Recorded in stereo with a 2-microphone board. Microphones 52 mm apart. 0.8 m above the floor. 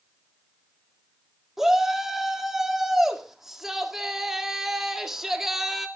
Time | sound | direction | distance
1.6 | a shout | 10° right (ahead or behind) | 1.9 m